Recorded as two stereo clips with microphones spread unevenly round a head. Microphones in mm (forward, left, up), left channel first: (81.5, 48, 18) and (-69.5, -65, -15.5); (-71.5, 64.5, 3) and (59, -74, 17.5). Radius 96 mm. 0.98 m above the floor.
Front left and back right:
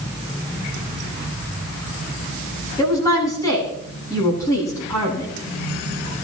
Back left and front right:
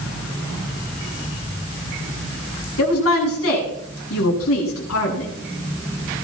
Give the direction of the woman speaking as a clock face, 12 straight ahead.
8 o'clock.